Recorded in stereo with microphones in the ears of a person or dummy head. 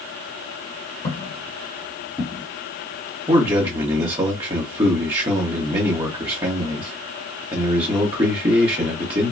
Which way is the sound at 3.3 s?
25° right (ahead or behind).